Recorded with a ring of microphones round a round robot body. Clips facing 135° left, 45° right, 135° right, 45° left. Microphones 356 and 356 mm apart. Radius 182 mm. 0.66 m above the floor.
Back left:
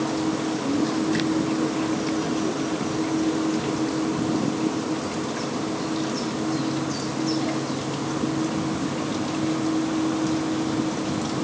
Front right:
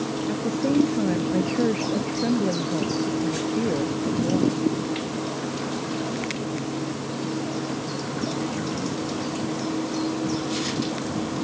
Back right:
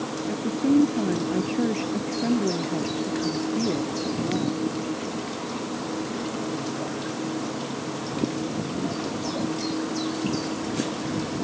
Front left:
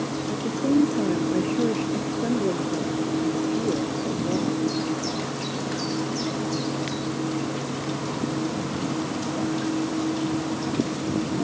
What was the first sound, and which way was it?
A woman speaking, 60° right.